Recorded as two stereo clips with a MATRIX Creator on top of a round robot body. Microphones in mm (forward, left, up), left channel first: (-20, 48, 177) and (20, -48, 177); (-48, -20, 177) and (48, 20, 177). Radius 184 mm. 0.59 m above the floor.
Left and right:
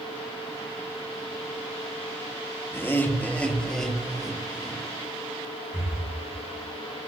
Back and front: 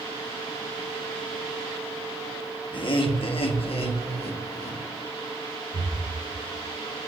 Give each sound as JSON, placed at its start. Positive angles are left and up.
{"t": 2.7, "sound": "laughter", "azimuth_deg": 175, "distance_m": 1.8}
{"t": 5.7, "sound": "breathing", "azimuth_deg": 20, "distance_m": 4.5}